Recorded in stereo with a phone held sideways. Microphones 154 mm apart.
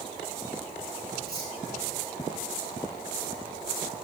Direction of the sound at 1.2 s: 25° left (ahead or behind).